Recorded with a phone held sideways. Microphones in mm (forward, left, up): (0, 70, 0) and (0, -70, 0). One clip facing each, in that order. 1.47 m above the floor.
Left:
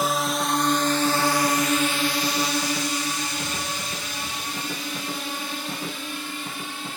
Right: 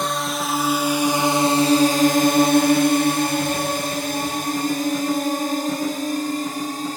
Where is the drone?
5° left (ahead or behind); by 7.0 s 40° right (ahead or behind).